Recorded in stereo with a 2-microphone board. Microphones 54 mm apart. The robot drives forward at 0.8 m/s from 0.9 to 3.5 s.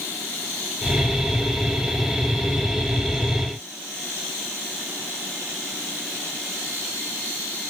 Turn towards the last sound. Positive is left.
No sound to turn to.